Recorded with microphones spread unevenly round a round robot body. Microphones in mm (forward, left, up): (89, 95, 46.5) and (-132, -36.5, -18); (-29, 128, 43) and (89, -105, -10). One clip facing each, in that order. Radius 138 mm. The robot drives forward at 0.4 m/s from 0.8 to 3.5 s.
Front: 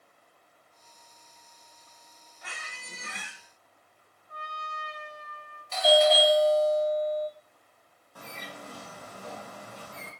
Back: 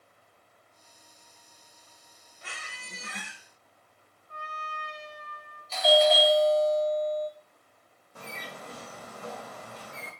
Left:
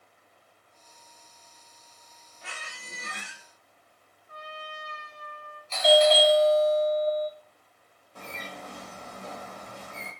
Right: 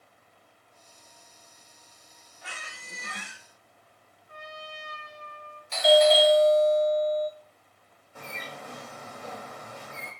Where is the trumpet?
175° left, 1.4 m.